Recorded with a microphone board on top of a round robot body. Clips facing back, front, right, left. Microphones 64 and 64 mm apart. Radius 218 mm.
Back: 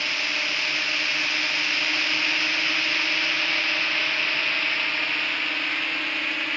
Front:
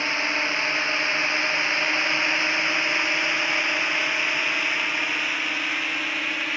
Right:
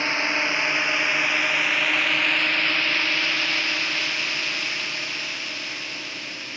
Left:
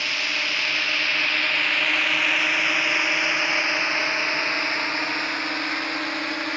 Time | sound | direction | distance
0.0 | a drone | 50° right | ?